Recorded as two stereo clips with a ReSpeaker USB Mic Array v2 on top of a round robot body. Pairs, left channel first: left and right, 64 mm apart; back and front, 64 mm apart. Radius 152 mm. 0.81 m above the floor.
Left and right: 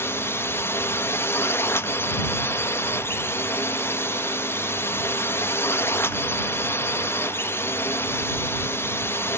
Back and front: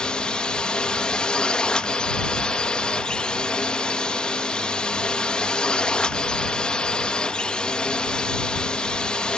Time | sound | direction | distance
0.0 | a drone | 110° left | ?